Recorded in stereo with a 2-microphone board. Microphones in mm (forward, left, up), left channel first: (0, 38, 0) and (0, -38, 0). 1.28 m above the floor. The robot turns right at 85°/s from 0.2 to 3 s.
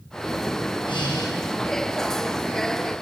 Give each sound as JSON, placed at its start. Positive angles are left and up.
{"t": 0.8, "sound": "breathing", "azimuth_deg": 90, "distance_m": 6.0}